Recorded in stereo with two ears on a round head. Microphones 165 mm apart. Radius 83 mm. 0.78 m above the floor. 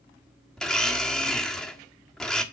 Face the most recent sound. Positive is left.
turn(degrees=5)  # may be behind; listen again after turning